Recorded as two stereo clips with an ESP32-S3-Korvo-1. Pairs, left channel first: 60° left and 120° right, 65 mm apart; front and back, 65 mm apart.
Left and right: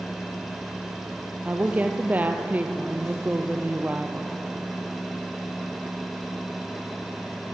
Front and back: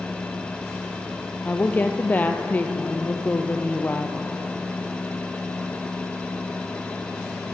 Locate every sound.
1.4 s a woman speaking: 55° right, 2.5 m